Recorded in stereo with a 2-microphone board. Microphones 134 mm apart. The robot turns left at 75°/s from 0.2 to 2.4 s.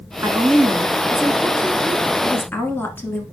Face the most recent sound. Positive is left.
turn(degrees=15)  # may be behind; listen again after turning